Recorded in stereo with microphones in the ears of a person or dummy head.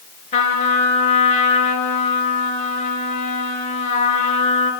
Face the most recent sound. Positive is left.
turn(degrees=40)  # may be behind; listen again after turning